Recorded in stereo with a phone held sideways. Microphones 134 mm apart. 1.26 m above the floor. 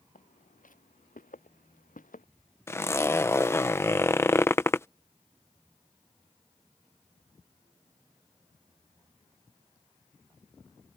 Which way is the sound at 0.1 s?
80° left.